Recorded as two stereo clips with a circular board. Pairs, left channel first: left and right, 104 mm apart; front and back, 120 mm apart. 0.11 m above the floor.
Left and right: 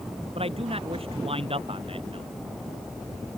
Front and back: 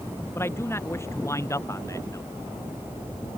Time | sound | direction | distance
0.3 | a man speaking | 70° right | ?